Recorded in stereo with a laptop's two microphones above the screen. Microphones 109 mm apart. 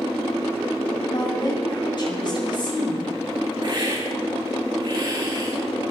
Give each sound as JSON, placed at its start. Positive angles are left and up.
{"t": 1.1, "sound": "a woman speaking", "side_deg": 45, "distance_m": 6.5}
{"t": 3.6, "sound": "a hiss", "side_deg": -45, "distance_m": 8.5}